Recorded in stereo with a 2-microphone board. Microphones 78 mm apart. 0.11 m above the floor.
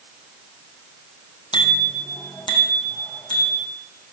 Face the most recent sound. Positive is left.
turn(degrees=70)  # may be behind; listen again after turning